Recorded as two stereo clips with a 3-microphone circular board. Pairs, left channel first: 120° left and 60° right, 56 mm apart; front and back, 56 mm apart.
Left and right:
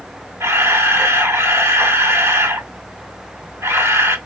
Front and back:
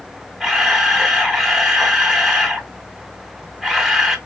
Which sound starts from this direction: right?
A camera shutter, at 0.4 s.